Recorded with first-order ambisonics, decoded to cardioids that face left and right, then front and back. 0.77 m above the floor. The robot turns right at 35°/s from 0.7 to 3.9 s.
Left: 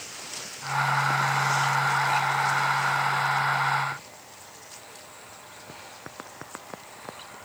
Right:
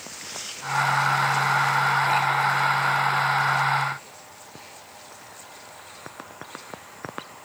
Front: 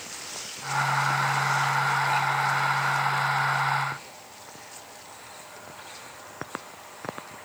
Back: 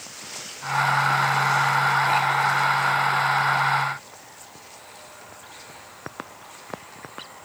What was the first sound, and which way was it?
Only background noise.